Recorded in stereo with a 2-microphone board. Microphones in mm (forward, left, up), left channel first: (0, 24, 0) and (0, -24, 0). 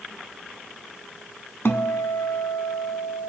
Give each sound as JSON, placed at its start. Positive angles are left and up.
{"t": 1.6, "sound": "a guitar", "side_deg": 55, "distance_m": 0.6}